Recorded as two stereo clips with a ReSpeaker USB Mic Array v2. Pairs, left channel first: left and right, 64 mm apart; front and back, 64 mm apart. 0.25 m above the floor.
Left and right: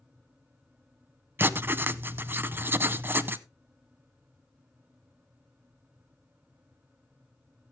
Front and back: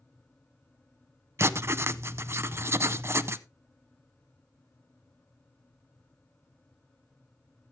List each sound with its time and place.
1.4 s writing: 140° right, 0.5 m